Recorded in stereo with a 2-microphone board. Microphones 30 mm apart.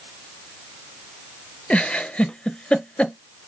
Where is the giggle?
45° left (ahead or behind), 0.5 m.